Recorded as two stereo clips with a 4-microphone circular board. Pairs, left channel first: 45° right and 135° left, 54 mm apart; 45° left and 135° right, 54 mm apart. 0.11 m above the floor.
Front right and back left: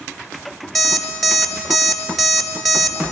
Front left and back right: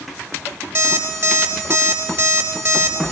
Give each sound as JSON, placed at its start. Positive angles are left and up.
{"t": 0.8, "sound": "an alarm clock", "azimuth_deg": -130, "distance_m": 1.0}